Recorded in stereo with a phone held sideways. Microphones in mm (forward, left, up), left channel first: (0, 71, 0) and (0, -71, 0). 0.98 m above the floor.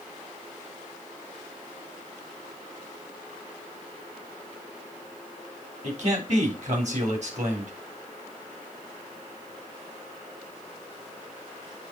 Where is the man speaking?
55° right (ahead or behind), 3 m.